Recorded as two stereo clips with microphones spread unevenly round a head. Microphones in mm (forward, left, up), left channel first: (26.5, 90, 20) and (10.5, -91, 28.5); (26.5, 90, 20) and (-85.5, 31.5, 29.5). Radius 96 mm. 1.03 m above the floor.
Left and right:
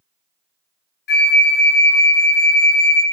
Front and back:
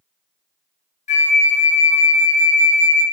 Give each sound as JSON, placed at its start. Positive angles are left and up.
{"t": 1.1, "sound": "a flute", "azimuth_deg": 50, "distance_m": 0.9}